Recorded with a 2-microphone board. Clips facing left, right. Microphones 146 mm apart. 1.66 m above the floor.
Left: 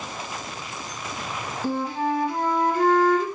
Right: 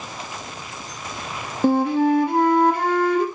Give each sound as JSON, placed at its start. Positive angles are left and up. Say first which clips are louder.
{"t": 1.6, "sound": "a flute", "louder": "right 9 dB", "side_deg": -70, "distance_m": 3.0}